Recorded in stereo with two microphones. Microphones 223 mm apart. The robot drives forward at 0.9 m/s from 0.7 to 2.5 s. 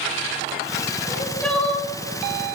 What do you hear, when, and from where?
1.0 s crying: 5° left (ahead or behind), 1.6 m